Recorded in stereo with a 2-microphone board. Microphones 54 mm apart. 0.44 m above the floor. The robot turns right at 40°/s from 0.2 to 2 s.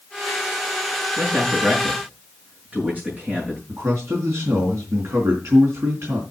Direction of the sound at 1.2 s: 65° right (ahead or behind).